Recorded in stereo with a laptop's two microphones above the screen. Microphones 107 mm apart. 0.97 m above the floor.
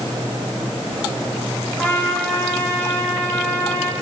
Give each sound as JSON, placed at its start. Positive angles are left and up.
{"t": 1.8, "sound": "a trumpet", "side_deg": 20, "distance_m": 7.0}